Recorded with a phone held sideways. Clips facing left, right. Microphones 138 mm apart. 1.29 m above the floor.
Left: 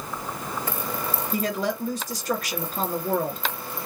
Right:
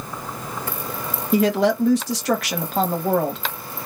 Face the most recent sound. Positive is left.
turn(degrees=-75)  # may be behind; listen again after turning